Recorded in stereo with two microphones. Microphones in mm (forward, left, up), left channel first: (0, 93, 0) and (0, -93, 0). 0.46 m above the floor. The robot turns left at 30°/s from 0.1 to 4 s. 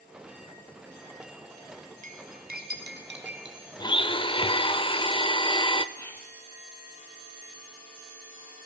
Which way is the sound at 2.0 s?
45° right (ahead or behind).